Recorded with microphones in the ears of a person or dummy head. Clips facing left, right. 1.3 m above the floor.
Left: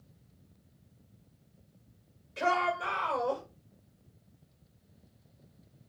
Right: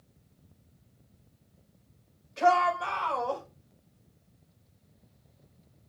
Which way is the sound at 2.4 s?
40° left (ahead or behind).